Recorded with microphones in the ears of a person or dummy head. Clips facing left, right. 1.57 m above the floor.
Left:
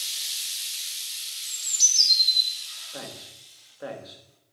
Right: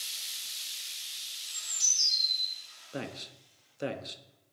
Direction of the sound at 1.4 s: 45° left (ahead or behind).